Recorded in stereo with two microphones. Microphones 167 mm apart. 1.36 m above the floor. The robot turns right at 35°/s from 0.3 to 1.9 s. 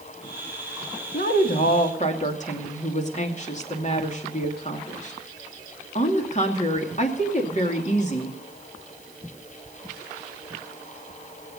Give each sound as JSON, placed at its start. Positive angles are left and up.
{"t": 1.1, "sound": "a woman speaking", "side_deg": 70, "distance_m": 2.5}